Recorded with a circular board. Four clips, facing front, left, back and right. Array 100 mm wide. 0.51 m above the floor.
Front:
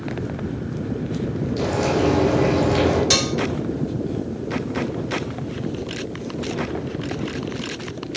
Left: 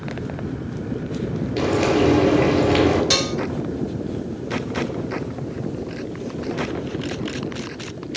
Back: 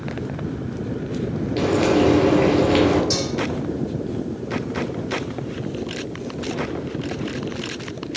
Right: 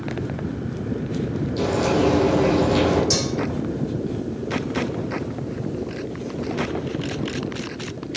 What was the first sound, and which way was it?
Frying, 115° left.